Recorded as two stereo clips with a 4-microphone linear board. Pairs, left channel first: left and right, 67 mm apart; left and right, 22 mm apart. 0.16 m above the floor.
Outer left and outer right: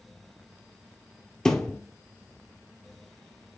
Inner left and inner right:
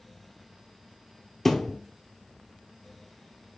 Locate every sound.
1.4 s a thud: 10° left (ahead or behind), 0.8 m